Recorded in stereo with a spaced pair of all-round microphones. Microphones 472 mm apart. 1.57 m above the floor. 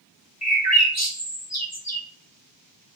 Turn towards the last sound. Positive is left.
turn(degrees=35)  # may be behind; listen again after turning